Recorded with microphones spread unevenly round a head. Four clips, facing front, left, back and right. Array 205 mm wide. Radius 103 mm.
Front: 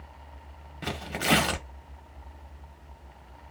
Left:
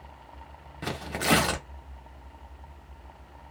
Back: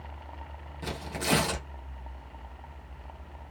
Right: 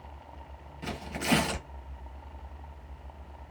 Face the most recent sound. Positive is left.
turn(degrees=60)